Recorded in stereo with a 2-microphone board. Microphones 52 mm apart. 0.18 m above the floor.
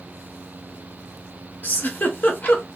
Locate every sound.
1.6 s a giggle: 40° left (ahead or behind), 0.8 m